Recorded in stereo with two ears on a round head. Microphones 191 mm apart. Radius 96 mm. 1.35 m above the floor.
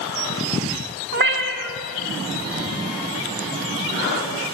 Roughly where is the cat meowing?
Right.